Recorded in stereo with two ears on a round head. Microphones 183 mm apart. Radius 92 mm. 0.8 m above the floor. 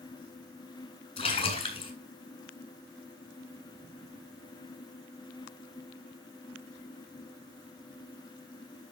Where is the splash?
35° left (ahead or behind), 4 m.